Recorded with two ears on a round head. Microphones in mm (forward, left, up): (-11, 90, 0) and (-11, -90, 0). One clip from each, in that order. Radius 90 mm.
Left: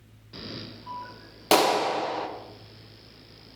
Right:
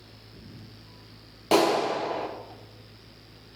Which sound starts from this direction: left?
A clap, at 1.5 s.